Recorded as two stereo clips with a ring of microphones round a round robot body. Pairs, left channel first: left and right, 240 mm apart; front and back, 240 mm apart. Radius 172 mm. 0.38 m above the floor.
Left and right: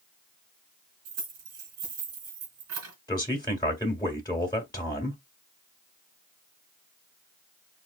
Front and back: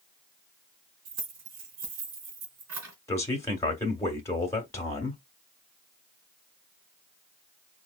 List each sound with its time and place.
1.1 s keys jangling: 130° right, 3.5 m
3.1 s a man speaking: 55° left, 1.4 m